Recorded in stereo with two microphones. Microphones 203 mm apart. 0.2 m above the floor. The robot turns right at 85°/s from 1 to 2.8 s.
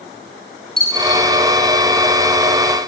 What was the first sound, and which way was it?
A dropped coin, 45° right (ahead or behind).